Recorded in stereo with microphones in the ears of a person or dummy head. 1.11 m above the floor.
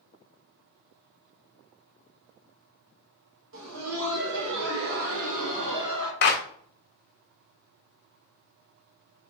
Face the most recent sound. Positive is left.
turn(degrees=55)  # may be behind; listen again after turning